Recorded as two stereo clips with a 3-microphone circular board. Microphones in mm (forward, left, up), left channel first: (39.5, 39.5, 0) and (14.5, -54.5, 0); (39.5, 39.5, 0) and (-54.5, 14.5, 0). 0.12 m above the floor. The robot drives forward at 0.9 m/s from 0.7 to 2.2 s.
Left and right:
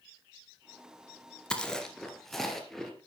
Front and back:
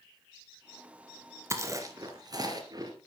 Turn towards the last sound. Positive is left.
turn(degrees=160)